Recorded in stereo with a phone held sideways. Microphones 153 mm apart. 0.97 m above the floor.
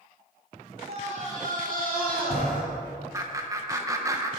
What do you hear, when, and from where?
0.9 s a scream: 40° right (ahead or behind), 2 m; by 2.6 s 70° right (ahead or behind), 2 m
3.1 s laughter: 20° right (ahead or behind), 0.6 m